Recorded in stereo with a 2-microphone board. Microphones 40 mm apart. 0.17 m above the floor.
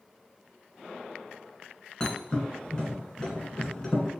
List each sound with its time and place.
2.0 s a thud: 20° left (ahead or behind), 1.0 m